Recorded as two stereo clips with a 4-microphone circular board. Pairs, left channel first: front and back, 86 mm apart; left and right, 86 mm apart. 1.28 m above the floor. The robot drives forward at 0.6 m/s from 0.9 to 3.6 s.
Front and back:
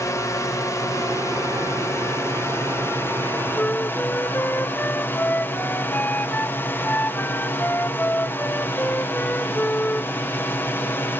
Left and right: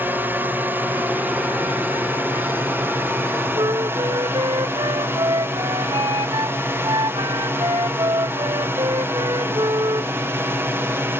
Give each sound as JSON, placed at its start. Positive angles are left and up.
{"t": 0.0, "sound": "a drone", "azimuth_deg": -35}
{"t": 3.5, "sound": "a flute", "azimuth_deg": -65}